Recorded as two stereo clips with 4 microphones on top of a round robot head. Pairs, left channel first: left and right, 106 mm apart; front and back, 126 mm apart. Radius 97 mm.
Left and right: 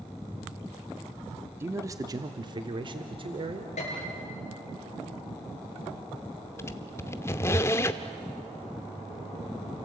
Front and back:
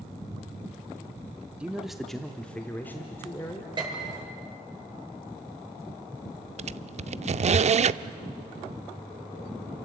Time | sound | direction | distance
1.6 | a man speaking | 110° right | 1.1 m
3.8 | a piano | 130° left | 7.5 m
6.6 | a squeak | 155° left | 0.5 m